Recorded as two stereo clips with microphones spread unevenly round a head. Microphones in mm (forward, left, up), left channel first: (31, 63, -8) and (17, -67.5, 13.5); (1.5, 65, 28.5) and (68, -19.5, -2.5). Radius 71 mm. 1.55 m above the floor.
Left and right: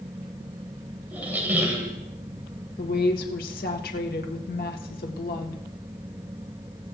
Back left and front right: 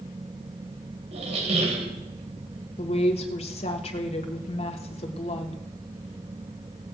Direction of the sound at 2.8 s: 105° left.